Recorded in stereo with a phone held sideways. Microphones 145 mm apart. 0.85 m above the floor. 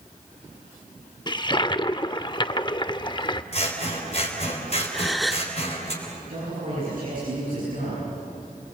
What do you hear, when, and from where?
1.3 s a toilet flushing: 30° left (ahead or behind), 0.5 m
3.5 s scissors: 45° left (ahead or behind), 3.5 m
4.9 s a gasp: centre (ahead or behind), 1.1 m
6.3 s a man speaking: 70° right (ahead or behind), 9.5 m